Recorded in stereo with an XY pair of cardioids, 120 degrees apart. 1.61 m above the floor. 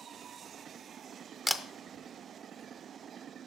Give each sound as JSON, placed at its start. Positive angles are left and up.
{"t": 1.5, "sound": "a camera shutter", "azimuth_deg": 5, "distance_m": 0.5}